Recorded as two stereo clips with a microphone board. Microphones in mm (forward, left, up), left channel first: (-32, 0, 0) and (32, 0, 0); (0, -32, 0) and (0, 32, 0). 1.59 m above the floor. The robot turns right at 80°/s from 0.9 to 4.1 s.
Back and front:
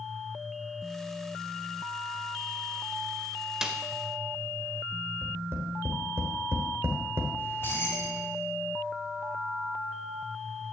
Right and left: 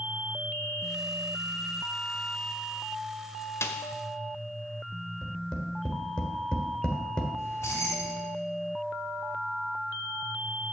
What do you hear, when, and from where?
3.6 s a snare drum: 75° right, 1.0 m; by 3.8 s 65° right, 1.0 m
5.2 s tapping: 20° right, 1.7 m
7.4 s keys jangling: 130° right, 2.5 m